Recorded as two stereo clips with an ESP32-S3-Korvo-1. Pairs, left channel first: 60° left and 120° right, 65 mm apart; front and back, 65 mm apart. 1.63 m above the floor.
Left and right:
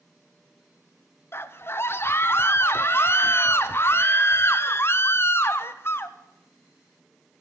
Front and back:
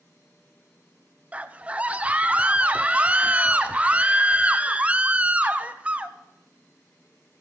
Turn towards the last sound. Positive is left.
turn(degrees=115)